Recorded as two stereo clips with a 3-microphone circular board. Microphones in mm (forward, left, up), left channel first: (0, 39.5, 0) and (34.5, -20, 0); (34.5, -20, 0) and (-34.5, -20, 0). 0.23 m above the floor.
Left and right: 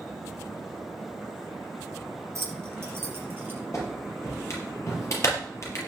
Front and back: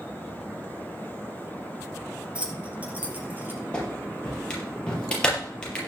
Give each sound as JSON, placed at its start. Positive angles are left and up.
{"t": 2.4, "sound": "keys jangling", "azimuth_deg": -105, "distance_m": 3.5}
{"t": 3.7, "sound": "a clap", "azimuth_deg": 75, "distance_m": 5.0}